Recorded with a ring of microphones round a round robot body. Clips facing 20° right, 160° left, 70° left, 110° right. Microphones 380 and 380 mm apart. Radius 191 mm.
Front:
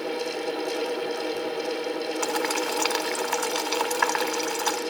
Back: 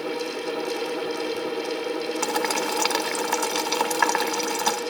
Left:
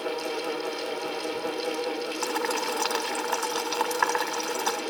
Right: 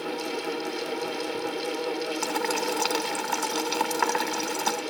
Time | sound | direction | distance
2.2 | boiling | 165° right | 1.6 m